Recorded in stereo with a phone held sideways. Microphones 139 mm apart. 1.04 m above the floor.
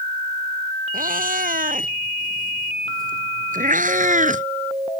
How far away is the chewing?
I don't hear chewing.